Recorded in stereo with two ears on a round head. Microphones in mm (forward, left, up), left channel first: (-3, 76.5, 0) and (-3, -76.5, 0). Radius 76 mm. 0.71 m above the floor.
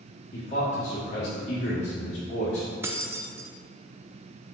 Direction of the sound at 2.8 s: 15° right (ahead or behind).